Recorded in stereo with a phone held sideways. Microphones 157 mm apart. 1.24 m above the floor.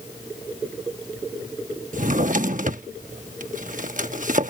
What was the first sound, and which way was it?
A drawer, 55° right (ahead or behind).